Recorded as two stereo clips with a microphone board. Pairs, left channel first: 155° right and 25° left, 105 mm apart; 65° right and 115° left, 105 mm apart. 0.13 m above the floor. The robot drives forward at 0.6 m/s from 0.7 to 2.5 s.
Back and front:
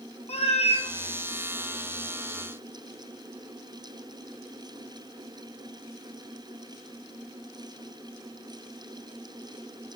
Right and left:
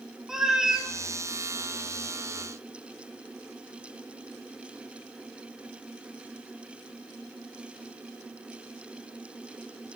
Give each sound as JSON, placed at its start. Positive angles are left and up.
{"t": 0.3, "sound": "a cat meowing", "azimuth_deg": -165, "distance_m": 0.8}